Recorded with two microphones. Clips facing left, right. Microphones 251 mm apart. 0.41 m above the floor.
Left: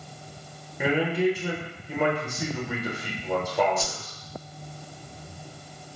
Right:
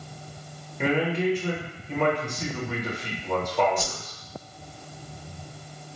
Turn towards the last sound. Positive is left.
turn(degrees=-15)  # may be behind; listen again after turning